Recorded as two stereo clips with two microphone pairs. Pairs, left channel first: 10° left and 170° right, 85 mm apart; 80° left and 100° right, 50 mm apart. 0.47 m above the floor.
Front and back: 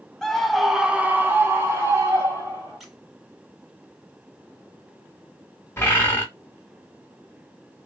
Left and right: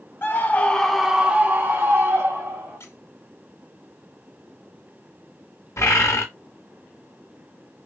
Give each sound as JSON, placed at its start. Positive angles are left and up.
{"t": 0.2, "sound": "a scream", "azimuth_deg": 90, "distance_m": 0.9}
{"t": 2.8, "sound": "a squeak", "azimuth_deg": 100, "distance_m": 0.9}
{"t": 5.8, "sound": "a bird", "azimuth_deg": 70, "distance_m": 1.3}